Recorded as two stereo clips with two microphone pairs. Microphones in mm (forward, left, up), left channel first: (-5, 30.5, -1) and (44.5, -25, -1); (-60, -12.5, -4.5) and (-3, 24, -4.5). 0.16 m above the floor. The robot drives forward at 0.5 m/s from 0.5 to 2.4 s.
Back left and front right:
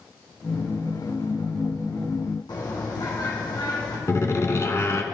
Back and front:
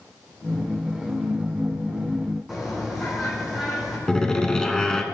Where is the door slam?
140° left, 1.0 m.